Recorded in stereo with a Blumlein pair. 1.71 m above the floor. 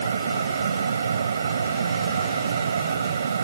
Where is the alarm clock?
No alarm clock in this recording.